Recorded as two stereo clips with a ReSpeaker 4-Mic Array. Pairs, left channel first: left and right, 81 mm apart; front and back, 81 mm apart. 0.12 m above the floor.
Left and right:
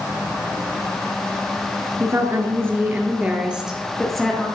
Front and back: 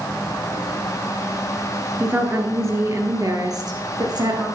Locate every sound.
2.0 s a woman speaking: 120° right, 1.9 m; by 4.5 s 170° left, 2 m